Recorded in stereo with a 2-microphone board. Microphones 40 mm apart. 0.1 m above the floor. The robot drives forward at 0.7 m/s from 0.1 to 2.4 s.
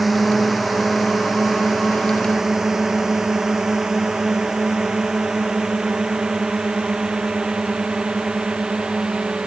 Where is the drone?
5° right (ahead or behind); by 9.5 s 25° right (ahead or behind).